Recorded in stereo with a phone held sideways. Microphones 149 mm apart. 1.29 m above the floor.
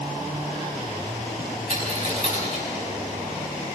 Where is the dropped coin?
50° left (ahead or behind), 6 m.